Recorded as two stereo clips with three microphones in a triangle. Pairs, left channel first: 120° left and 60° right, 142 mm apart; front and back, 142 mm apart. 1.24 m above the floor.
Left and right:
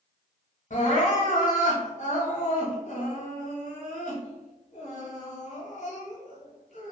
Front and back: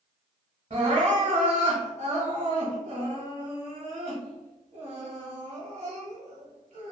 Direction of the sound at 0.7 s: 145° left.